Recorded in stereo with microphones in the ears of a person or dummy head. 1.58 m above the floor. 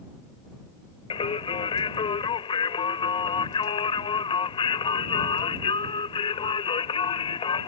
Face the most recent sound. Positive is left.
turn(degrees=30)  # may be behind; listen again after turning